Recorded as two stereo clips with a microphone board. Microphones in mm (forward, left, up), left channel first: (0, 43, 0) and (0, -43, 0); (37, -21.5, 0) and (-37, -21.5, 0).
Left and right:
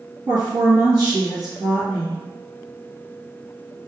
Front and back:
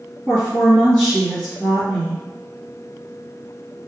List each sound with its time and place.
0.3 s a woman speaking: 75° right, 1.9 m